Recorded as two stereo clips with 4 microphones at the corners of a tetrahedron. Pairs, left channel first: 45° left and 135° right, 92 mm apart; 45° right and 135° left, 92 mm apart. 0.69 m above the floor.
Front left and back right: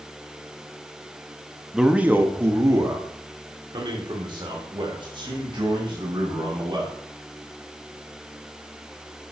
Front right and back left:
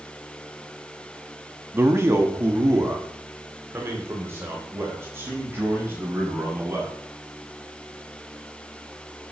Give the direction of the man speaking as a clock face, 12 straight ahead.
7 o'clock.